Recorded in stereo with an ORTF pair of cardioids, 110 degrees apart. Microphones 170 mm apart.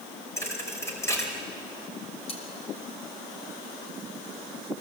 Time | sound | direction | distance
0.4 | a thud | 15° left | 4 m
2.3 | cutlery clinking | 35° left | 3.5 m